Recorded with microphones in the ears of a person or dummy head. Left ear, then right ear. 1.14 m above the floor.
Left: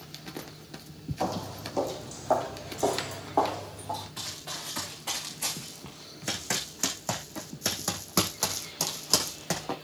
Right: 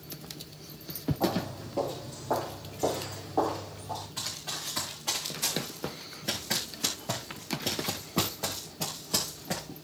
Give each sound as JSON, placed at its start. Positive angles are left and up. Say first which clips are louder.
{"t": 1.2, "sound": "footsteps", "louder": "even", "side_deg": 65, "distance_m": 3.0}
{"t": 4.2, "sound": "running footsteps", "louder": "right 1 dB", "side_deg": 10, "distance_m": 4.5}